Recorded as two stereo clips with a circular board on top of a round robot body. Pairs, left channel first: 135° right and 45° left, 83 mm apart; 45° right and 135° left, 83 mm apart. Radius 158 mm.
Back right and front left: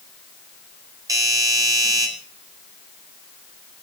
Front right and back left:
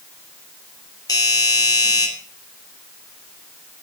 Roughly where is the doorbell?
Ahead.